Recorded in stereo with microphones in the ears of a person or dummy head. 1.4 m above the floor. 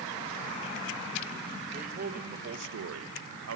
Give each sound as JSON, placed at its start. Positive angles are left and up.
{"t": 1.7, "sound": "a man speaking", "side_deg": -40, "distance_m": 2.0}